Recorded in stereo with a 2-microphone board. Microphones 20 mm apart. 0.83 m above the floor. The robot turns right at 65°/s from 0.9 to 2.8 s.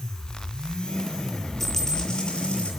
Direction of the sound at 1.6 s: 10° left.